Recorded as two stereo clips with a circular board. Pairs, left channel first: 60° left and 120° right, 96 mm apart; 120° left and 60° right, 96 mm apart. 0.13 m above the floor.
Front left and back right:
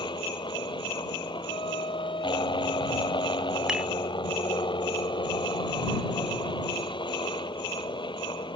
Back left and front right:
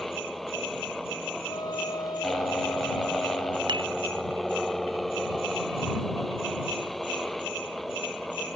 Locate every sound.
0.0 s a helicopter: 35° left
1.5 s a flute: 80° left
3.7 s dishes clattering: 40° right